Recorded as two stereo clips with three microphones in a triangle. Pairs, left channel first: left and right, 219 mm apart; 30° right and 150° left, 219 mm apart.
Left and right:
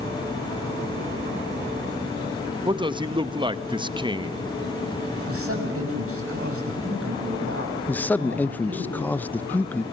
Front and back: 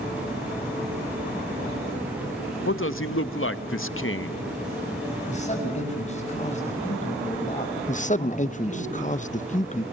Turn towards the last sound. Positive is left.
turn(degrees=10)